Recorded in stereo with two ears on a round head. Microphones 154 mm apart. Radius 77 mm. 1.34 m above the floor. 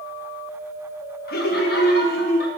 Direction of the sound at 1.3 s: 60° left (ahead or behind).